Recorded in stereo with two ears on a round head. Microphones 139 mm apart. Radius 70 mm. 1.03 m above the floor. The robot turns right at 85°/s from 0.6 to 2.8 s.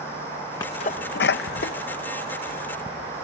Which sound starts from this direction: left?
A sneeze, at 0.6 s.